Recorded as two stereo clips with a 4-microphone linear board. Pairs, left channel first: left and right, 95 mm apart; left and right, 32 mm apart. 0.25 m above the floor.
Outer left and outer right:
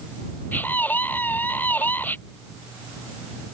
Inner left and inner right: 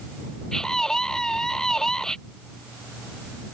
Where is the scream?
20° left (ahead or behind).